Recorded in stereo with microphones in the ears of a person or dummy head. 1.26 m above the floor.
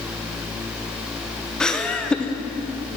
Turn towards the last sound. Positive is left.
turn(degrees=5)  # may be behind; listen again after turning